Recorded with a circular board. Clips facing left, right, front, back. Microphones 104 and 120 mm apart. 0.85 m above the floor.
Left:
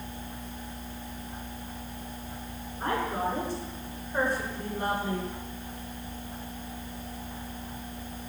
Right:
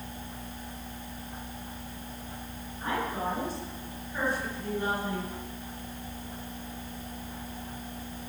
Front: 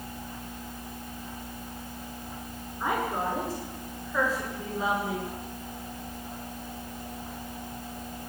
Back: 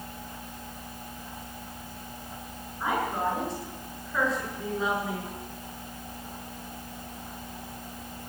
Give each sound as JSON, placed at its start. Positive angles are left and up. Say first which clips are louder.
{"t": 2.8, "sound": "a woman speaking", "louder": "left 2 dB, back 1 dB", "azimuth_deg": 90, "distance_m": 9.0}